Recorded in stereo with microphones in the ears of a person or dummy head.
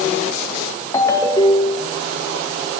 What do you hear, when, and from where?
0.9 s a ringtone: 20° left (ahead or behind), 0.7 m